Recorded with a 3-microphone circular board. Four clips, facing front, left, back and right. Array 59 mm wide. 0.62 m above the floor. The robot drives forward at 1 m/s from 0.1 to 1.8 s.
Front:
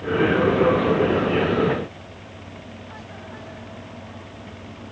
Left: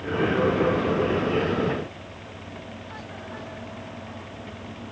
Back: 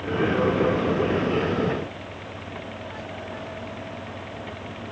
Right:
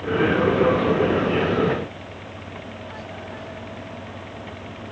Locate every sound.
Only background noise.